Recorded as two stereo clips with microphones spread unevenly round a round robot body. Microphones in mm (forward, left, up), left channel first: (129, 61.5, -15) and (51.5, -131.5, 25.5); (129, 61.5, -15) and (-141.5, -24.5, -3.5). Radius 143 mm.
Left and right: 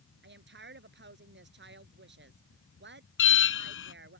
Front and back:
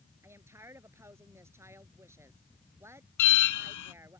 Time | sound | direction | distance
0.2 | a woman speaking | 80° right | ?
3.2 | an alarm | 45° left | ?